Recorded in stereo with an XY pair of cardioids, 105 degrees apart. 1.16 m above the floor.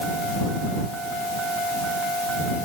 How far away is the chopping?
I don't hear chopping.